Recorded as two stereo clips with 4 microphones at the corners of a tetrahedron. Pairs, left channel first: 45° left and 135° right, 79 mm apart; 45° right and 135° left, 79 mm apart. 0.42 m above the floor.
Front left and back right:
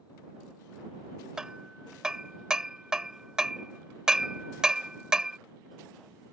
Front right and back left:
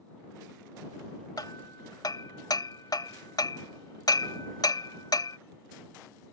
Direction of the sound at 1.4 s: 55° right.